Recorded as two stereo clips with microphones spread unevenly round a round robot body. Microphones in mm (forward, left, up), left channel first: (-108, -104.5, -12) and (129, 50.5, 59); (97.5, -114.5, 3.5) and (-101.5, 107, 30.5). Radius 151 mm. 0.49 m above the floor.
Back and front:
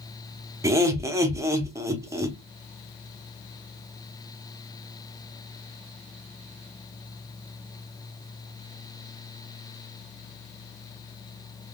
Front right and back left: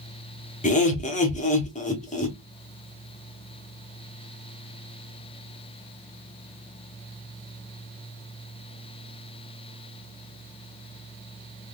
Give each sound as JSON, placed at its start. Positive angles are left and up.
{"t": 0.6, "sound": "laughter", "azimuth_deg": -65, "distance_m": 0.8}